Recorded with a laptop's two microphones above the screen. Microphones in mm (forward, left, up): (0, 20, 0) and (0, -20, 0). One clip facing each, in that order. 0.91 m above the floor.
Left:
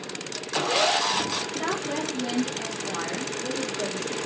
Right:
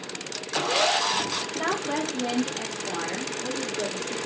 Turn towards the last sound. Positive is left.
turn(degrees=-30)  # may be behind; listen again after turning